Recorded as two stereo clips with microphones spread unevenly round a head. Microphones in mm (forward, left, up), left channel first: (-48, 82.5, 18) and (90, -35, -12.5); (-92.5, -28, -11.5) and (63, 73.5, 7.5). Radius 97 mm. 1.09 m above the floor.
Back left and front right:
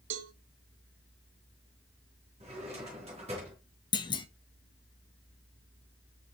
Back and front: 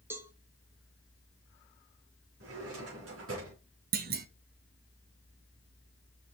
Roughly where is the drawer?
Ahead.